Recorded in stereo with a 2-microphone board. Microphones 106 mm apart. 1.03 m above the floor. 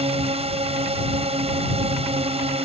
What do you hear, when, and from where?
0.0 s a drone: 75° right (ahead or behind)